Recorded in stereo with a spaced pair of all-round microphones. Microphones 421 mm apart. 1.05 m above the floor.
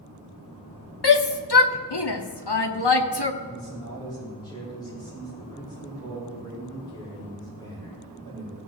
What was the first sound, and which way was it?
A shout, 70° left (ahead or behind).